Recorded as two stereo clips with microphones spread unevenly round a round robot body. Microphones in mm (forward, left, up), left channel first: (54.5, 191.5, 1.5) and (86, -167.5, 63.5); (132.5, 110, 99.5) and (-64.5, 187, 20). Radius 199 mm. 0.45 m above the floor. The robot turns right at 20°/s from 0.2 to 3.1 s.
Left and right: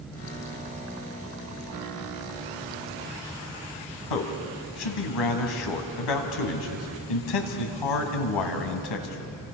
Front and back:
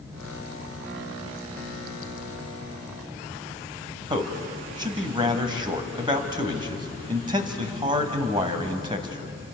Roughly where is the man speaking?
Left.